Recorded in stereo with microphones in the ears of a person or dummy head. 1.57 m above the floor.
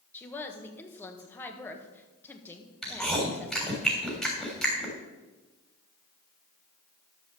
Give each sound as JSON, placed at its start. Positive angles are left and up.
{"t": 0.1, "sound": "a woman speaking", "side_deg": 10, "distance_m": 1.3}
{"t": 2.8, "sound": "chewing", "side_deg": 0, "distance_m": 3.5}